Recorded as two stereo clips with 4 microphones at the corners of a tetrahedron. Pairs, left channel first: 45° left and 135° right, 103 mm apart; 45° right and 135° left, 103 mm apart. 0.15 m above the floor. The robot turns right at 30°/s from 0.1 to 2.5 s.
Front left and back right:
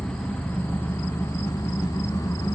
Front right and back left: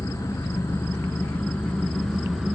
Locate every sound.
0.0 s an engine running: 25° right, 1.3 m; by 2.6 s 45° left, 1.3 m